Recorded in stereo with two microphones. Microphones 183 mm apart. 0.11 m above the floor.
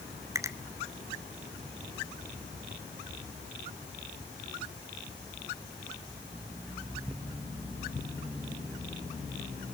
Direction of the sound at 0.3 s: 15° right (ahead or behind).